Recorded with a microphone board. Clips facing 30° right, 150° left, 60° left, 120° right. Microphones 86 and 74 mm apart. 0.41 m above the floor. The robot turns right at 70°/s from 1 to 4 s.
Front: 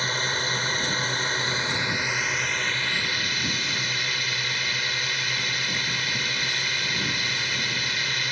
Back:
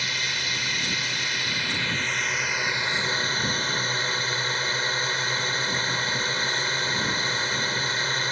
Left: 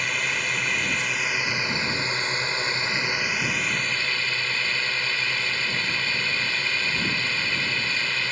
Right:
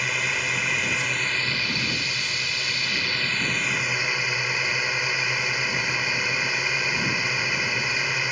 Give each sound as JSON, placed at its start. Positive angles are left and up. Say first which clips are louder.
{"t": 0.0, "sound": "a drone", "louder": "front 4 dB, even", "azimuth_deg": -35}